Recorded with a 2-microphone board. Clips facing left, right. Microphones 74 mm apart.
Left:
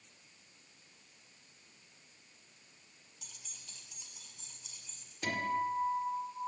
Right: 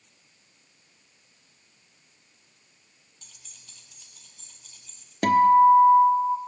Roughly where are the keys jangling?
Centre.